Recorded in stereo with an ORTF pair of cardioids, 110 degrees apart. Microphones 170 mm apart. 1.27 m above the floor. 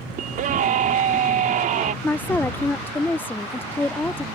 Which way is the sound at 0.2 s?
55° right.